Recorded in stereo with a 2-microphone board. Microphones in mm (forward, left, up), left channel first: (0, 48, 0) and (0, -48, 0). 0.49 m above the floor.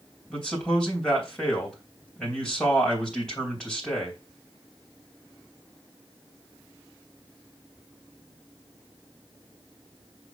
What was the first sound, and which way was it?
A man speaking, 10° left (ahead or behind).